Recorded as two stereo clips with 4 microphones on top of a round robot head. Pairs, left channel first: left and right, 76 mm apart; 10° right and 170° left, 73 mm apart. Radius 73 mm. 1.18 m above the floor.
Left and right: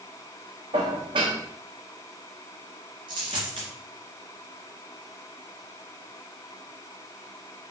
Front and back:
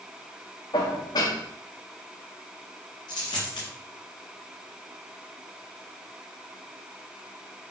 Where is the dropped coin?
55° right, 2.5 m.